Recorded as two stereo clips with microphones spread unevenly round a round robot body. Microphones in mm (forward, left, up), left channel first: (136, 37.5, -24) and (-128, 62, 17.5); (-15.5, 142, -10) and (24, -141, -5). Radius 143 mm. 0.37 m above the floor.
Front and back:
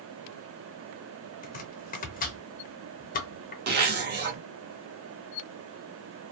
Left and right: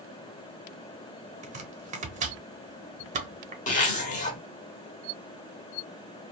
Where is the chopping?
25° right, 0.6 m.